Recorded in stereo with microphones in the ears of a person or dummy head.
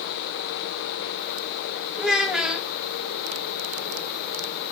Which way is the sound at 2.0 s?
5° right (ahead or behind).